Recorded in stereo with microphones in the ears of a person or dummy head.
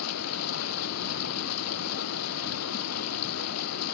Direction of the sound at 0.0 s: 90° left.